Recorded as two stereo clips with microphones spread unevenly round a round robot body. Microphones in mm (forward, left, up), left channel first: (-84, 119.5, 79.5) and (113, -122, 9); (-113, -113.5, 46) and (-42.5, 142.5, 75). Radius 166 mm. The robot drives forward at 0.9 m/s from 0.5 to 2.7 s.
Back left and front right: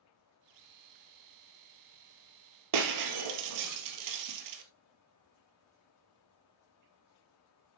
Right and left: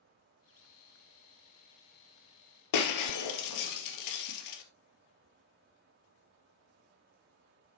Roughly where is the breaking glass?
Right.